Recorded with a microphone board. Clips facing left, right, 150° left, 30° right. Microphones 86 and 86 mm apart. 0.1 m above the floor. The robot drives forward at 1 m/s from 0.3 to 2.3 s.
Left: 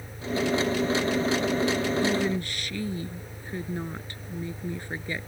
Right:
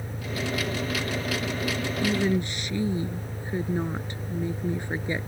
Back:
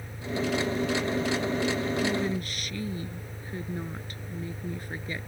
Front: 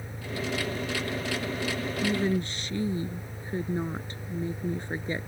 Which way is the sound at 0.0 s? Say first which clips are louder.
Left 4 dB, back 4 dB; 95° right.